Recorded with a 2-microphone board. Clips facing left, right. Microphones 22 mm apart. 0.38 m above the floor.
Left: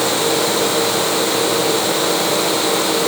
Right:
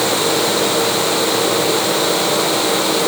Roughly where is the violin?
I don't hear a violin.